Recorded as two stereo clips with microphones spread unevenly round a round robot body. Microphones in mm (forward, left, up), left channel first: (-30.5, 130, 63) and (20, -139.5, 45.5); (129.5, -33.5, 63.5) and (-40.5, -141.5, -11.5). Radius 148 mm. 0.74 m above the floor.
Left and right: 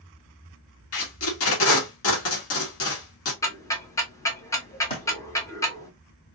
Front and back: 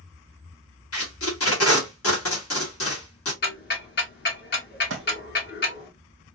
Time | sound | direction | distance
0.9 | tape being pulled | 70° left | 1.2 m
3.4 | ticking | 25° left | 1.0 m
4.9 | a thud | 170° left | 1.0 m